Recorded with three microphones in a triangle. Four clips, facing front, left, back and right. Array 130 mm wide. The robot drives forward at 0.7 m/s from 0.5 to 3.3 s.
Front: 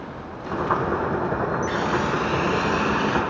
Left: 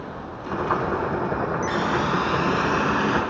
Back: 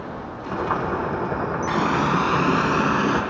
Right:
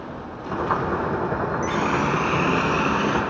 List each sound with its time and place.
1.7 s a running tap: 170° right, 1.7 m; by 3.2 s 175° right, 2.5 m